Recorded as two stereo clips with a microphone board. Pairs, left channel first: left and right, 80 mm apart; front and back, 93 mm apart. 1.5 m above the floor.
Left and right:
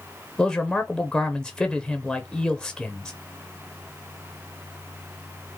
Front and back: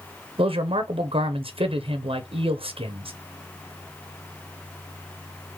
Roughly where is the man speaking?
Behind.